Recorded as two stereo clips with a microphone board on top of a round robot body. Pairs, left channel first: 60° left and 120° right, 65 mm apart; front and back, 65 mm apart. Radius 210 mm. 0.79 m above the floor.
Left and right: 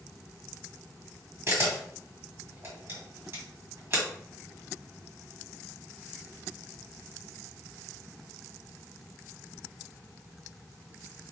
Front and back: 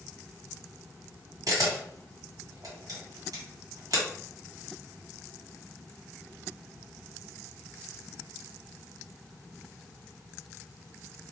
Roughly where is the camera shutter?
Behind.